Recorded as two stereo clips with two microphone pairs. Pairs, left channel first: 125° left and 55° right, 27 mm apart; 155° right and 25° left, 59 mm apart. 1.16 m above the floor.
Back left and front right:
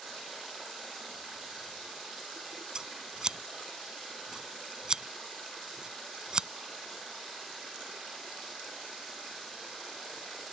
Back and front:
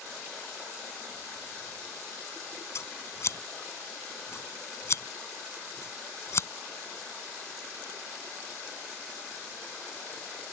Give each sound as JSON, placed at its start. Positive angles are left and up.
{"t": 2.8, "sound": "scissors", "azimuth_deg": -120}